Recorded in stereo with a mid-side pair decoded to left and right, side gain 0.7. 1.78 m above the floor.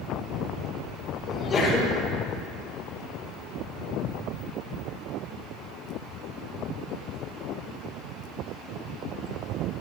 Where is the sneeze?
30° left, 5.5 m.